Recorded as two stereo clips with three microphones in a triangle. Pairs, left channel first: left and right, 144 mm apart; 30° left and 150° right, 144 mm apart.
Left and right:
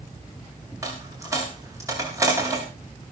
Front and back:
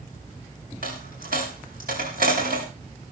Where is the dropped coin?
160° right, 5.5 m.